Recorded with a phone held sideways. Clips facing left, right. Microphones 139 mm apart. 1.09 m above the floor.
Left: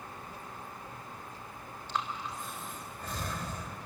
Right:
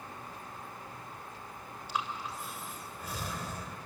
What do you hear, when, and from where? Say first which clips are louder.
1.9 s breathing: even; 10° right (ahead or behind), 3 m